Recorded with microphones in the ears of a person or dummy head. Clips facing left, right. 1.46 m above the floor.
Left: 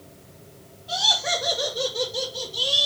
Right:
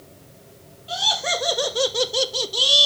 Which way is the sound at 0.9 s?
35° right (ahead or behind).